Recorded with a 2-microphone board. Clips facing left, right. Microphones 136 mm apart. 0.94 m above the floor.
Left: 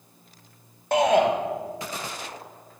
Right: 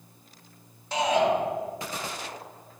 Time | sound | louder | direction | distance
0.9 | a shout | left 4 dB | 65° left (ahead or behind) | 1.4 m